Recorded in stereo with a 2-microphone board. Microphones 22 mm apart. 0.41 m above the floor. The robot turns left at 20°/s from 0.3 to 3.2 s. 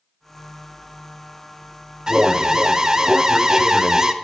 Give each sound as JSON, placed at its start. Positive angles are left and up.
{"t": 2.1, "sound": "an alarm", "side_deg": -35, "distance_m": 0.7}